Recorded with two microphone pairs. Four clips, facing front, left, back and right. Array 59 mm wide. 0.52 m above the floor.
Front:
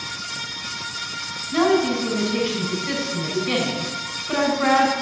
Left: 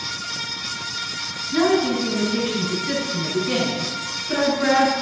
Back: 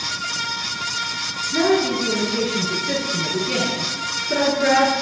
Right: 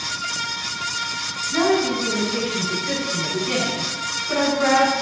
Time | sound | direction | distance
1.5 | a woman speaking | 30° right | 5 m